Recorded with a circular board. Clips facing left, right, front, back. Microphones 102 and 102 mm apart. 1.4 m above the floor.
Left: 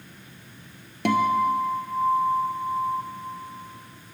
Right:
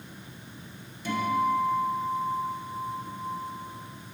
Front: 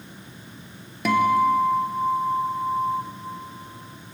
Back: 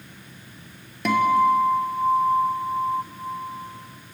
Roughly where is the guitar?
Left.